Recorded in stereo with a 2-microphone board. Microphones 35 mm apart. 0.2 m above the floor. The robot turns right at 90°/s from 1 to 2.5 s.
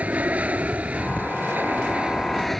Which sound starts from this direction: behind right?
An aircraft, at 0.0 s.